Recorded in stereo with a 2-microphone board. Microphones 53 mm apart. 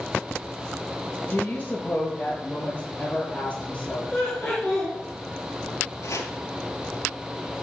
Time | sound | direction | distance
1.3 | a woman speaking | 30° left (ahead or behind) | 3 m
4.1 | laughter | 10° left (ahead or behind) | 4 m
6.0 | chopping | 70° left (ahead or behind) | 2 m